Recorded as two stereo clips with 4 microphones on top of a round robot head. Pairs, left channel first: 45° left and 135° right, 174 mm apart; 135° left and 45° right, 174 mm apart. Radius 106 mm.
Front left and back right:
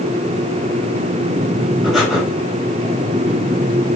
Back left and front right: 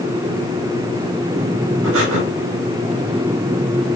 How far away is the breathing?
About 6 m.